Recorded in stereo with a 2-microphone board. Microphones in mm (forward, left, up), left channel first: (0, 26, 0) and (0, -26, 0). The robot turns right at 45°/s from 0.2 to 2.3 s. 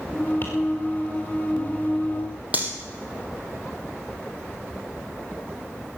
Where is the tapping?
50° left (ahead or behind), 4.5 m; by 0.5 s 55° left (ahead or behind), 4.5 m.